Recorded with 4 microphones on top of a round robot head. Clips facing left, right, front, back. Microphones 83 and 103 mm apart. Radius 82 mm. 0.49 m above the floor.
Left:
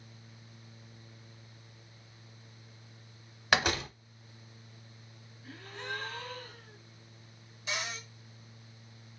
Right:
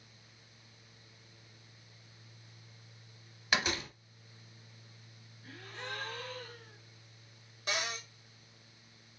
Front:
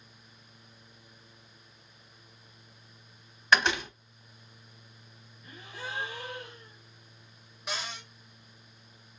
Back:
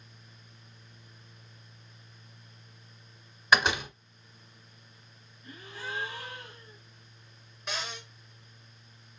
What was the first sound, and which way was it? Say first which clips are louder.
A door slam: left 5 dB, even; 100° left.